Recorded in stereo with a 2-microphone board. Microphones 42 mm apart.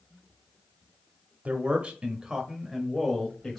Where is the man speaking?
40° right (ahead or behind), 1.1 m; by 3.6 s 10° left (ahead or behind), 1.3 m.